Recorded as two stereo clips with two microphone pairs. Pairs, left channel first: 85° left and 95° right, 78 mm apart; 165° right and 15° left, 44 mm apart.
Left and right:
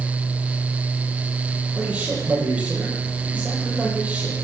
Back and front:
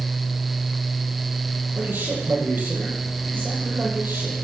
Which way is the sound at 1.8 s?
25° right.